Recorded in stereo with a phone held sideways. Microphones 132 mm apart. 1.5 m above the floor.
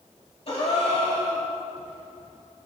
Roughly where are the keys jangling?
No keys jangling in this recording.